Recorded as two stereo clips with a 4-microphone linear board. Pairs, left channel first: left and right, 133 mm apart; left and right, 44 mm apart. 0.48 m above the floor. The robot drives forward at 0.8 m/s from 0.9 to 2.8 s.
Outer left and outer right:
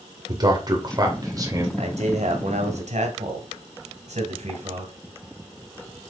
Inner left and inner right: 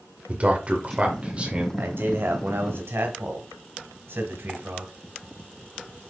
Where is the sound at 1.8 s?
60° right (ahead or behind), 1.9 m; by 4.9 s 65° right (ahead or behind), 1.8 m.